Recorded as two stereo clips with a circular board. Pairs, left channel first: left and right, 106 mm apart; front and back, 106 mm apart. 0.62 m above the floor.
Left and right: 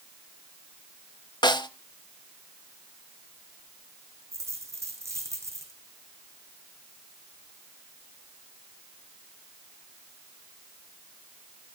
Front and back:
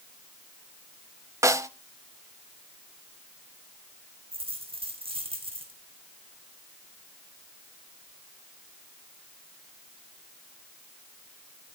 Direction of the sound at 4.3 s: 150° right.